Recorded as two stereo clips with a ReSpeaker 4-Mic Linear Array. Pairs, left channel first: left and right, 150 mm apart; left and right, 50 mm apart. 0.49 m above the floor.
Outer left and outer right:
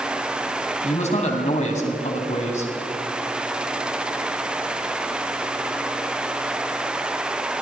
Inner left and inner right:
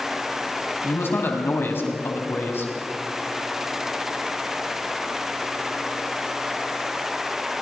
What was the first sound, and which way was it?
A man speaking, 50° left (ahead or behind).